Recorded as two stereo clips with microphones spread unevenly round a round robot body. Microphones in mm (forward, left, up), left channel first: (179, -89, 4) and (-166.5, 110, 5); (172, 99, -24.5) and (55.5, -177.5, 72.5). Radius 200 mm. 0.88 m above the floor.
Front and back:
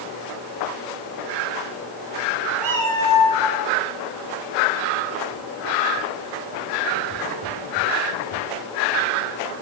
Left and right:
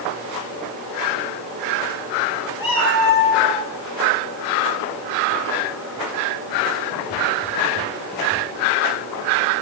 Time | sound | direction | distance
2.6 | a cat meowing | 80° left | 7.5 m